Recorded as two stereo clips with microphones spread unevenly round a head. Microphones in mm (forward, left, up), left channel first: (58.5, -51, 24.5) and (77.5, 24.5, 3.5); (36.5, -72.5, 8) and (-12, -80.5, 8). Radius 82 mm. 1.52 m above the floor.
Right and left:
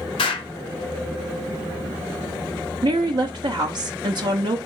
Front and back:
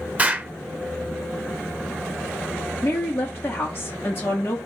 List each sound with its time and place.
0.2 s an explosion: 105° right, 0.6 m
2.8 s a woman speaking: 80° left, 0.6 m